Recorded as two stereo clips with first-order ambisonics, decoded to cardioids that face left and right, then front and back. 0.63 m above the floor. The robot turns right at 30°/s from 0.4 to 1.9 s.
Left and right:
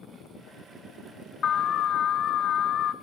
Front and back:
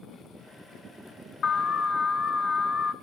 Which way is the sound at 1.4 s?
40° left.